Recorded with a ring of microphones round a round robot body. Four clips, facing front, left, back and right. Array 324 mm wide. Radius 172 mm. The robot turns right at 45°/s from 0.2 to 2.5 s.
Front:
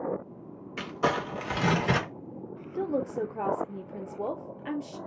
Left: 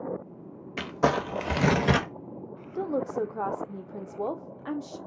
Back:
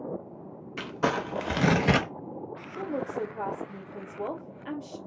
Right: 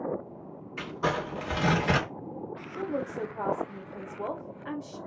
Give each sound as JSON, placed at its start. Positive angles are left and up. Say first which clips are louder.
{"t": 0.8, "sound": "crumpling", "louder": "left 5 dB, even", "azimuth_deg": 90, "distance_m": 0.7}
{"t": 2.8, "sound": "a woman speaking", "louder": "left 4 dB, front 2 dB", "azimuth_deg": 65, "distance_m": 0.6}